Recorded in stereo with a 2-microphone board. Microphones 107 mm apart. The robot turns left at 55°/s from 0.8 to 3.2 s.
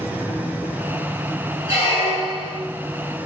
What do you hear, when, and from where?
1.7 s a squeak: 150° right, 1.8 m; by 2.6 s 160° left, 1.8 m